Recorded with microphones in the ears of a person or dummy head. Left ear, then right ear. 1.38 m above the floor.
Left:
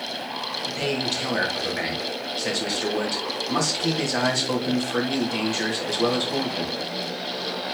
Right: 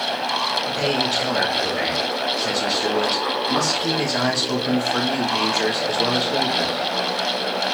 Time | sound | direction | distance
0.7 | a man speaking | 20° left (ahead or behind) | 3 m